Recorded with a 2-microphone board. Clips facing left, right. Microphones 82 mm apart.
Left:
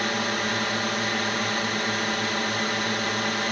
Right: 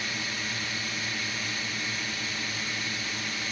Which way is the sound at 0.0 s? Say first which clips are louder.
Left 9 dB; 60° left (ahead or behind).